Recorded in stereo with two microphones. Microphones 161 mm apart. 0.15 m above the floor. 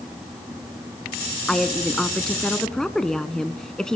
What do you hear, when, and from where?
1.5 s a woman speaking: 5° left (ahead or behind), 1.2 m